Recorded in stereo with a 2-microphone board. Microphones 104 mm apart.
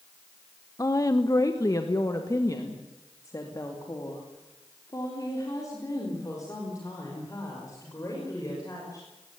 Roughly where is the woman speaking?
Left.